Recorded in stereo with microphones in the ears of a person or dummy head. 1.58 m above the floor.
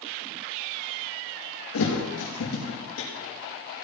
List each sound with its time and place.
1.7 s a thud: 70° left (ahead or behind), 5 m